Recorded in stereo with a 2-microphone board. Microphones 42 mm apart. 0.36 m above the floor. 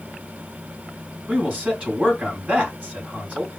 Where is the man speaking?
30° right (ahead or behind), 3.5 m.